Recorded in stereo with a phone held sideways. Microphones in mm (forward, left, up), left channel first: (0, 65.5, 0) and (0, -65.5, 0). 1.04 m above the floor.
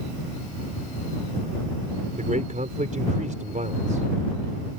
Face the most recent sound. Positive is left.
turn(degrees=-75)  # may be behind; listen again after turning